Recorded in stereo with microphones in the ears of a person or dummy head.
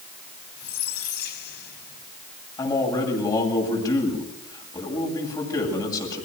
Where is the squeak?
65° left (ahead or behind), 5 m.